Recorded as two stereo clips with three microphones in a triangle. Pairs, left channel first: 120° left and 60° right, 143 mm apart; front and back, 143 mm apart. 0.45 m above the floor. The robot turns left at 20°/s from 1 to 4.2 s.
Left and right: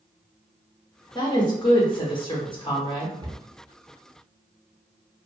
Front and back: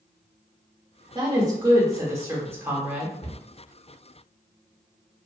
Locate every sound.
1.1 s a woman speaking: 145° left, 0.8 m; by 3.1 s 105° left, 0.8 m
3.2 s a cupboard door: 15° right, 0.6 m; by 3.4 s 20° right, 0.6 m